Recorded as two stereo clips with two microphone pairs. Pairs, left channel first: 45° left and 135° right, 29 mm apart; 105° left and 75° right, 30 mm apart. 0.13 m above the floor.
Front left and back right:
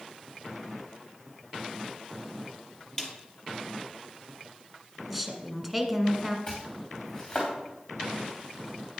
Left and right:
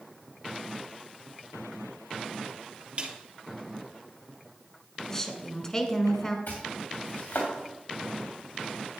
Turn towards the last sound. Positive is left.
turn(degrees=100)